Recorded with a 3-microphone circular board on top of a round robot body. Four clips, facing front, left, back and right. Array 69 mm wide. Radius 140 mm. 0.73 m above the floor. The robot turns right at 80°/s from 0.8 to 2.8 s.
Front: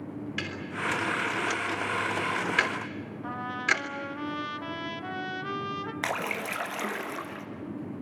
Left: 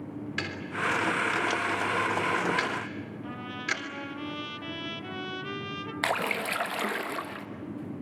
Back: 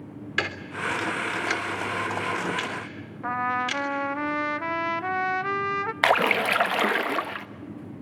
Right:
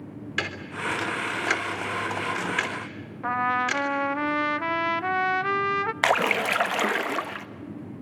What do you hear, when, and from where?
0.4 s ticking: 165° right, 3 m; by 3.8 s 5° right, 3 m
3.2 s a trumpet: 125° right, 0.9 m
6.0 s a splash: 155° right, 1.3 m